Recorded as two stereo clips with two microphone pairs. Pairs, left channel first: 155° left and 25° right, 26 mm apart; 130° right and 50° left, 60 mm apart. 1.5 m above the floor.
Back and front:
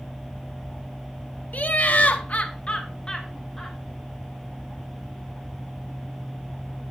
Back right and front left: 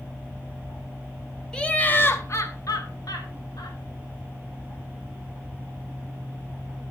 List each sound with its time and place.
1.5 s laughter: 150° left, 1.2 m; by 3.8 s 125° right, 1.9 m